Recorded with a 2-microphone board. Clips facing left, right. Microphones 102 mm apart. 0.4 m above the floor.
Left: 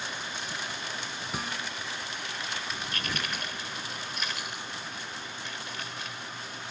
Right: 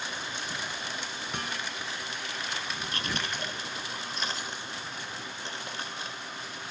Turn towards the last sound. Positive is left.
turn(degrees=-30)  # may be behind; listen again after turning